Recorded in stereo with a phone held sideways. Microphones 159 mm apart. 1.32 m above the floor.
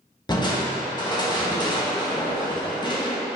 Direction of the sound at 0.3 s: 25° left (ahead or behind).